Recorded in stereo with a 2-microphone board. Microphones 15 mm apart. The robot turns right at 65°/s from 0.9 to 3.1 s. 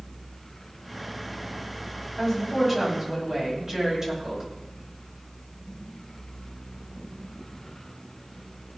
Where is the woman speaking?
155° left, 7.5 m; by 4.4 s 145° right, 7.5 m.